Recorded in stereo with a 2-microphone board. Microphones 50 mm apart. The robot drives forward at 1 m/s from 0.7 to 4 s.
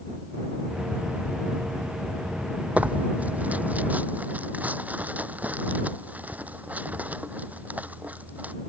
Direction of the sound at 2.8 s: 25° right (ahead or behind).